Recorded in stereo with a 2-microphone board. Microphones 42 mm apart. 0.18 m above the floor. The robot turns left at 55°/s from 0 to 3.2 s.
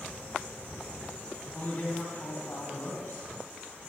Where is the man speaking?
135° left, 4 m; by 3.2 s 45° left, 4 m.